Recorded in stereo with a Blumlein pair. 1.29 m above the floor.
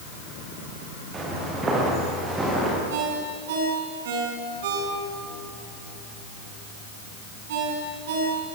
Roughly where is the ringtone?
Ahead right.